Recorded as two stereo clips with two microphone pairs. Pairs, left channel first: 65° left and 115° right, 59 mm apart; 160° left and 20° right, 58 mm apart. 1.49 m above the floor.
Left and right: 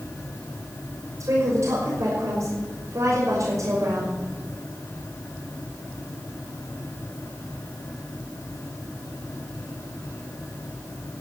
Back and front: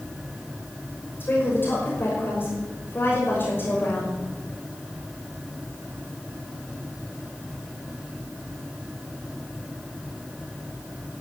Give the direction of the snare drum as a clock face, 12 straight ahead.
No snare drum in this recording.